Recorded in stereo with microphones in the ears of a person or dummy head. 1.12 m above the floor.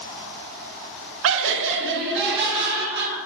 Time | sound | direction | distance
1.2 | laughter | 70° right (ahead or behind) | 0.6 m